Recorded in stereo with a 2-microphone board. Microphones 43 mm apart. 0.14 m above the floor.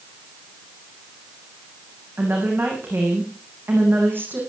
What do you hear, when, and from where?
2.2 s a woman speaking: 55° right (ahead or behind), 9.5 m